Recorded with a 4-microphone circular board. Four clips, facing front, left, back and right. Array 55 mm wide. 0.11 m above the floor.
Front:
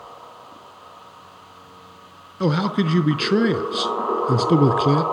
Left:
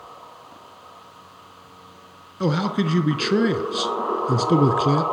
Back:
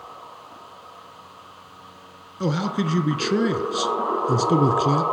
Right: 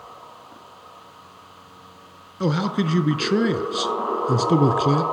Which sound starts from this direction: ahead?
A man speaking, at 2.4 s.